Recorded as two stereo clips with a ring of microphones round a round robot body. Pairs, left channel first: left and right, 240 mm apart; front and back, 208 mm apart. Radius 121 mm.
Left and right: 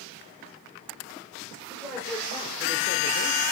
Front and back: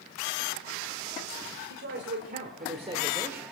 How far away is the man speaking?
About 2.5 m.